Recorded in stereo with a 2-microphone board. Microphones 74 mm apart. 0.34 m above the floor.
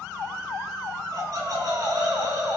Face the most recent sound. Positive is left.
turn(degrees=-55)  # may be behind; listen again after turning